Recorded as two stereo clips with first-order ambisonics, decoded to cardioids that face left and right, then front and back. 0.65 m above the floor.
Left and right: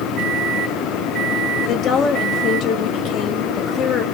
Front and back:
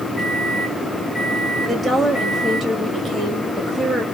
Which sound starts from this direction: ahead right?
A microwave, at 0.2 s.